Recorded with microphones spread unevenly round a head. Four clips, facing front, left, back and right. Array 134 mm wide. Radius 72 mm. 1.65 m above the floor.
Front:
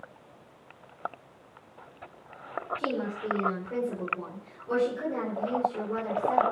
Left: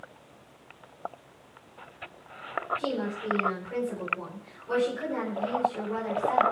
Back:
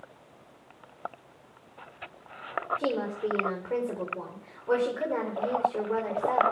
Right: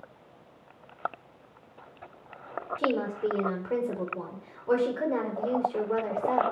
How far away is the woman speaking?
About 5 m.